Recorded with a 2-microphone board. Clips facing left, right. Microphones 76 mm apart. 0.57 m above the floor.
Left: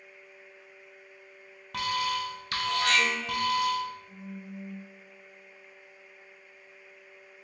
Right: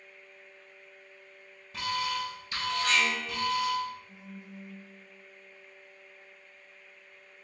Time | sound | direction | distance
1.7 | an alarm | 65° left (ahead or behind) | 0.6 m
4.1 | a phone buzzing | 55° left (ahead or behind) | 1.8 m